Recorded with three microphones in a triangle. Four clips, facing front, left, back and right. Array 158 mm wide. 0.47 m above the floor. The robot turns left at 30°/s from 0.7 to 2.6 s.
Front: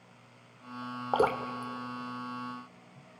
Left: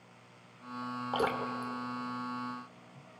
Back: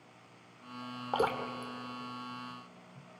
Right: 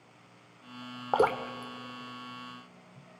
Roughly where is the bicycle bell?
No bicycle bell in this recording.